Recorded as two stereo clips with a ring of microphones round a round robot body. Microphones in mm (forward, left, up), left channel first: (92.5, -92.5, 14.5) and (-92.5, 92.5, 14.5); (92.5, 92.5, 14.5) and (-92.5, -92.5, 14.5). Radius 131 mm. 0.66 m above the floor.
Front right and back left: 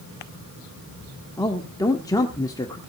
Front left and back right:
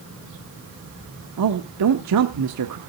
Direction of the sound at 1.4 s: 120° right.